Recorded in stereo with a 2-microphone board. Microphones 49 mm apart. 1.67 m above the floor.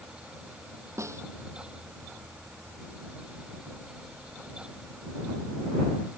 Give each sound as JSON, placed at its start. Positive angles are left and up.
{"t": 1.0, "sound": "a snare drum", "side_deg": -80}